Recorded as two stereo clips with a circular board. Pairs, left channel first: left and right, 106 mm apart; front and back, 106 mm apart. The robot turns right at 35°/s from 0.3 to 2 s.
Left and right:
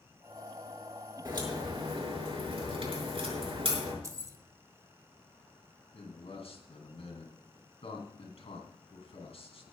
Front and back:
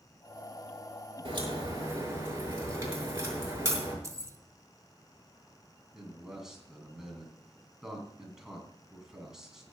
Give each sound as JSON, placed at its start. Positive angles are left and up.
{"t": 1.2, "sound": "a crack", "azimuth_deg": -140, "distance_m": 6.0}
{"t": 4.0, "sound": "keys jangling", "azimuth_deg": -135, "distance_m": 0.9}
{"t": 5.9, "sound": "a man speaking", "azimuth_deg": 95, "distance_m": 3.0}